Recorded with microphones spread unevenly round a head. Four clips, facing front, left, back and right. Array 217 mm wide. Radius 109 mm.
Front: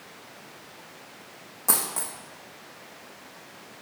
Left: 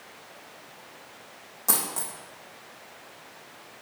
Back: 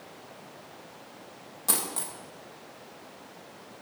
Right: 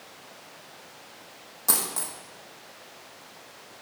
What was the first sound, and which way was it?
A dropped coin, 10° left.